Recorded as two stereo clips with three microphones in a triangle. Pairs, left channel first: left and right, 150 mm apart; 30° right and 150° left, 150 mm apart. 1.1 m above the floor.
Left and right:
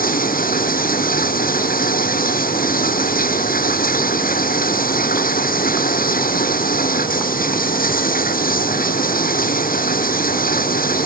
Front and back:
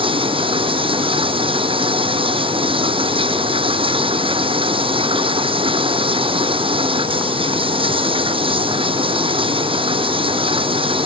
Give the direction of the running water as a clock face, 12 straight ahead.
9 o'clock.